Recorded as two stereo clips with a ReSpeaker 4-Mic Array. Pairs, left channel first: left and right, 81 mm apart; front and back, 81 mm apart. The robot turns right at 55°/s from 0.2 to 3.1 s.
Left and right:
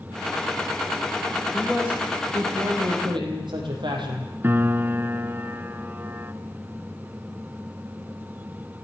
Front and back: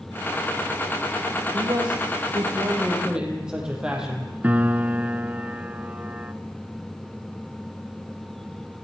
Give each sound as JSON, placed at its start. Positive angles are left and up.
{"t": 1.5, "sound": "a man speaking", "azimuth_deg": 175, "distance_m": 5.0}
{"t": 4.4, "sound": "a piano", "azimuth_deg": -130, "distance_m": 0.7}